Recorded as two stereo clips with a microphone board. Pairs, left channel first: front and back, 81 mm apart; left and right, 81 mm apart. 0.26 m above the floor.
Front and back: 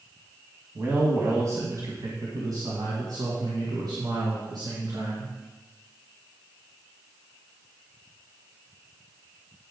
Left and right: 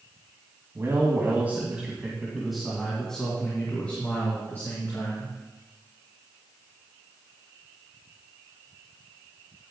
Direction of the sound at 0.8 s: 130° right.